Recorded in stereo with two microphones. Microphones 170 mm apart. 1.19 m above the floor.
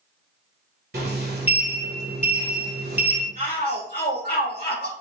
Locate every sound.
0.9 s a sliding door: 70° right (ahead or behind), 1.3 m
3.4 s a shout: 85° right, 1.9 m